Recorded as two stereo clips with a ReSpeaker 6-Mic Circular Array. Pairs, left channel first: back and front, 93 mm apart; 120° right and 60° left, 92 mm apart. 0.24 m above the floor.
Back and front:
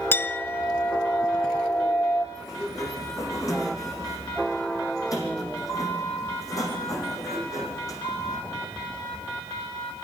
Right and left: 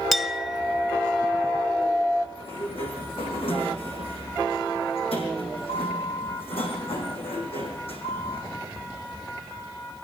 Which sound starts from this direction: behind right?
A sliding door, at 2.4 s.